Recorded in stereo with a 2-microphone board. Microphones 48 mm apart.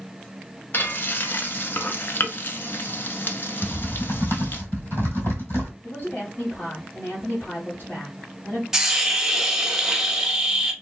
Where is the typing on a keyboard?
55° left (ahead or behind), 1.9 m.